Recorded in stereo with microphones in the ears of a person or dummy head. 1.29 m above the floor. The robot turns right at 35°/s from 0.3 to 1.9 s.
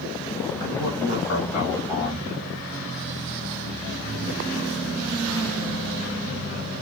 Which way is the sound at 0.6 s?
110° left.